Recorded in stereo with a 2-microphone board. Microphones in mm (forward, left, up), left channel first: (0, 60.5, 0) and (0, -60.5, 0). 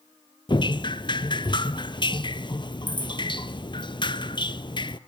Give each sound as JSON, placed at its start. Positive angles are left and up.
{"t": 0.5, "sound": "dripping", "side_deg": 40, "distance_m": 0.6}